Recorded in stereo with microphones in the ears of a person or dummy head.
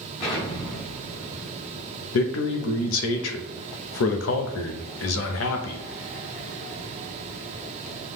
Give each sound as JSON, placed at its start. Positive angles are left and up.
{"t": 0.2, "sound": "an explosion", "side_deg": 30, "distance_m": 2.0}
{"t": 2.1, "sound": "a man speaking", "side_deg": 75, "distance_m": 0.6}